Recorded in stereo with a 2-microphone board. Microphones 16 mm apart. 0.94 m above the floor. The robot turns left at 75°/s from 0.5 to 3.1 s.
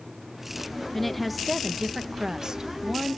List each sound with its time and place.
0.9 s a woman speaking: 20° left, 0.7 m; by 3.2 s 140° right, 0.7 m